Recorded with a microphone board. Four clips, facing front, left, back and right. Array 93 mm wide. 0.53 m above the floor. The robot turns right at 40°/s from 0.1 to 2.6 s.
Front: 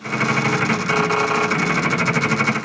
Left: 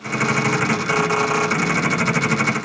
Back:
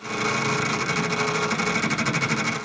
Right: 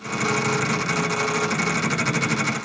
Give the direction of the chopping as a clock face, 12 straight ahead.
No chopping in this recording.